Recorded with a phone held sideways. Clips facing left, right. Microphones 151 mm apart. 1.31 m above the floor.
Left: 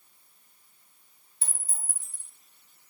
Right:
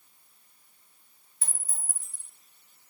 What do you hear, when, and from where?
1.4 s a clink: 30° left (ahead or behind), 1.0 m